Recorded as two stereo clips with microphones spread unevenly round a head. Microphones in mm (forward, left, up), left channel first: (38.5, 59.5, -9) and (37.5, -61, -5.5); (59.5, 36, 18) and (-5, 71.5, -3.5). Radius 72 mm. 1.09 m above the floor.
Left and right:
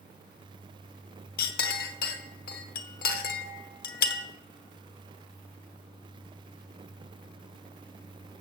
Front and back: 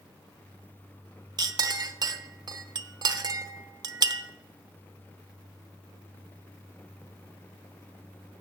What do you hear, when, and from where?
1.4 s a clink: 120° left, 0.7 m